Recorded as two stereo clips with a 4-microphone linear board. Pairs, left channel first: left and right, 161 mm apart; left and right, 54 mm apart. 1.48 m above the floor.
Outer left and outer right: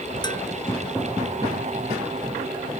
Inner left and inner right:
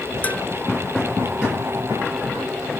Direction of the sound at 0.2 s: 25° left (ahead or behind).